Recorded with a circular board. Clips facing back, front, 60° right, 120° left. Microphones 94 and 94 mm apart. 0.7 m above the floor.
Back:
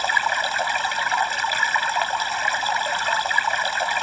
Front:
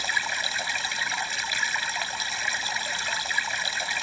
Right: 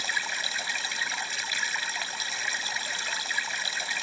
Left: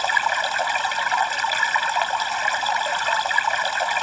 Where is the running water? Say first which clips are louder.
Back 8 dB, left 12 dB; 145° left.